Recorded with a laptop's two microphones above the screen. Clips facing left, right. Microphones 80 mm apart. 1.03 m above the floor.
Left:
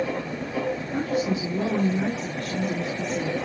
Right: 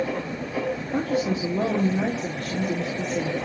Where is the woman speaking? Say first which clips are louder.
Right 2 dB; 45° right (ahead or behind), 2.5 m.